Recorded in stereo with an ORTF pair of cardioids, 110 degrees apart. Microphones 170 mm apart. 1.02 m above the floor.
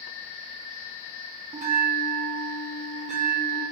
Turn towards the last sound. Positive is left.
turn(degrees=-45)